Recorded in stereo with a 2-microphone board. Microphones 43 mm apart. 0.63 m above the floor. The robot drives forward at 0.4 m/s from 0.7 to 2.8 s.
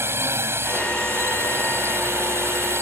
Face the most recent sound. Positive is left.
turn(degrees=-75)  # may be behind; listen again after turning